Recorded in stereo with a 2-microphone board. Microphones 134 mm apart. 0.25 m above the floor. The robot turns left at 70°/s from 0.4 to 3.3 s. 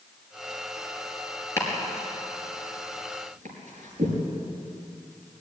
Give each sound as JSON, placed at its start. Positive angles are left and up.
{"t": 1.6, "sound": "chopping", "side_deg": 20, "distance_m": 5.5}